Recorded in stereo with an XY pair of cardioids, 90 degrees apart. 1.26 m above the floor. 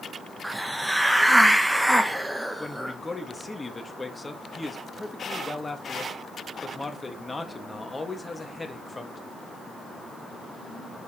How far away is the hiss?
About 1.0 m.